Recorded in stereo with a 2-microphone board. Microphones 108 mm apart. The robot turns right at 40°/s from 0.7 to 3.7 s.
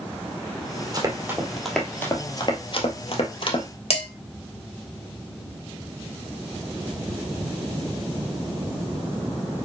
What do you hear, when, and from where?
0.9 s running footsteps: 35° right (ahead or behind), 2 m; by 3.6 s 40° left (ahead or behind), 1.6 m
3.9 s dishes clattering: 60° left (ahead or behind), 2 m